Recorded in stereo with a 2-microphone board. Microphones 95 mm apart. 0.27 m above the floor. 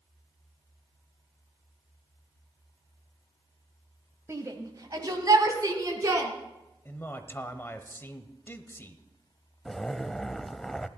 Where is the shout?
30° right (ahead or behind), 1.2 m; by 6.3 s 35° right (ahead or behind), 3 m.